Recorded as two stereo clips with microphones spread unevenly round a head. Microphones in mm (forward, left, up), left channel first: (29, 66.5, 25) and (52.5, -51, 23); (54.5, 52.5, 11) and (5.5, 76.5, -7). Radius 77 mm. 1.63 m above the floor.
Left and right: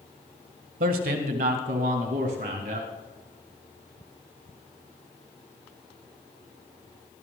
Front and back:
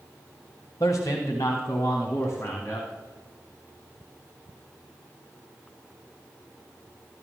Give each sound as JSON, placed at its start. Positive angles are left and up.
{"t": 0.8, "sound": "a man speaking", "azimuth_deg": -85, "distance_m": 1.4}